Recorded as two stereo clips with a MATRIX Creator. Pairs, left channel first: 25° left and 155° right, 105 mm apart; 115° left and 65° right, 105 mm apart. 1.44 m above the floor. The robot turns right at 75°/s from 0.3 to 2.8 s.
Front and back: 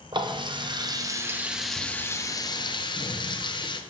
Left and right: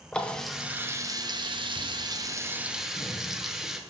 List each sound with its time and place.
0.1 s a running tap: 170° right, 0.6 m; by 3.8 s 15° left, 0.6 m